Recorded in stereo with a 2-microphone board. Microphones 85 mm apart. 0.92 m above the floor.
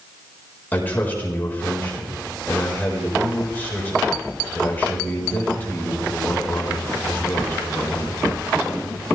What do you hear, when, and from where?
0.7 s a man speaking: 25° left (ahead or behind), 4.5 m